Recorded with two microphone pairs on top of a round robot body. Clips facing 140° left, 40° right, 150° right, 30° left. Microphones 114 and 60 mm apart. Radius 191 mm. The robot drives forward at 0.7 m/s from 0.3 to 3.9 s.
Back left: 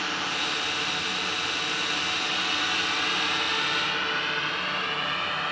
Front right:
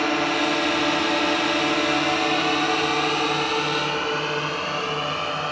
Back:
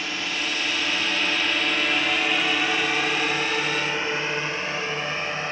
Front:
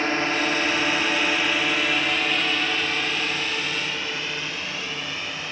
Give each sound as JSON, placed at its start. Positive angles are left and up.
{"t": 0.0, "sound": "a drone", "azimuth_deg": -10}